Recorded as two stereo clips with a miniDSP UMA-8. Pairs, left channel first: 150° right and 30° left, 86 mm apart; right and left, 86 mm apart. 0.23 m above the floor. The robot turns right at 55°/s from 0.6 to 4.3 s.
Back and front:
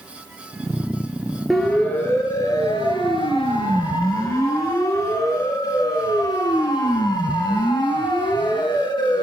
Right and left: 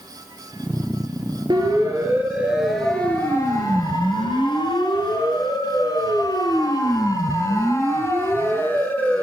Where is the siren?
120° left, 5.5 m; by 9.2 s 160° right, 3.5 m.